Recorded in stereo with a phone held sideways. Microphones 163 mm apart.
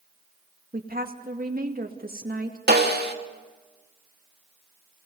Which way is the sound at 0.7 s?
65° right (ahead or behind).